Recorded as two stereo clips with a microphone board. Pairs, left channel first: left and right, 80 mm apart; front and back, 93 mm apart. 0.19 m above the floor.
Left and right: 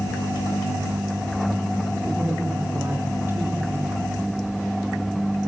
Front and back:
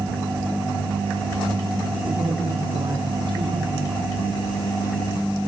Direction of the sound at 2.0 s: 160° right.